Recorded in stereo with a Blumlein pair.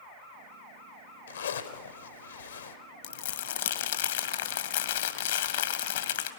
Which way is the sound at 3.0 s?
60° left.